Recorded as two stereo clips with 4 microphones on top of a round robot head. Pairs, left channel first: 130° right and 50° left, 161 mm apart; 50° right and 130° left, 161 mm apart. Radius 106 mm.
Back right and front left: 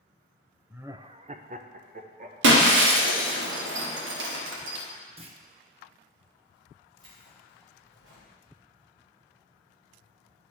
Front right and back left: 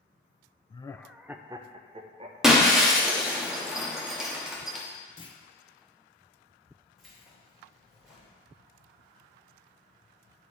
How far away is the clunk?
About 0.9 m.